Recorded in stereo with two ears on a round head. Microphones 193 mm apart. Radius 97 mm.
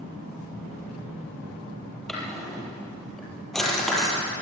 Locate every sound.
2.1 s a drawer: centre (ahead or behind), 5.5 m